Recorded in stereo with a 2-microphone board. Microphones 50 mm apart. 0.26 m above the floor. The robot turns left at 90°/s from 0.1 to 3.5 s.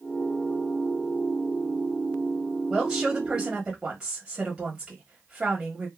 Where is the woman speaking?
15° right (ahead or behind), 1.4 m; by 5.9 s 20° right (ahead or behind), 1.4 m.